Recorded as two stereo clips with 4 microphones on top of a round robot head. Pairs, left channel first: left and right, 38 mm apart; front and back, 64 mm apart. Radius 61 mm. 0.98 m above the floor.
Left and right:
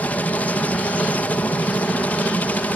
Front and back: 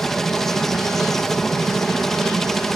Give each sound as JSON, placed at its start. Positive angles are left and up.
{"t": 0.0, "sound": "a helicopter", "azimuth_deg": 85}